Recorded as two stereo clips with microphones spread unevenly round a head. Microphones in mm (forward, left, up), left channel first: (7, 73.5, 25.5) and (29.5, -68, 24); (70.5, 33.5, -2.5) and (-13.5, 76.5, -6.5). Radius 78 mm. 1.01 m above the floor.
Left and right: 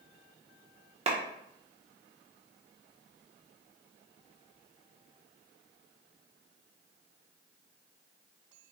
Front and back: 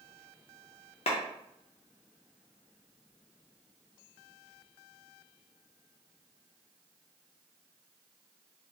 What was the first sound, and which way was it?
A clap, 35° right.